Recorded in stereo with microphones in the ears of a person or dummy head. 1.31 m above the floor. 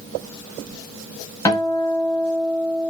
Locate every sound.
1.4 s a guitar: 20° left (ahead or behind), 2 m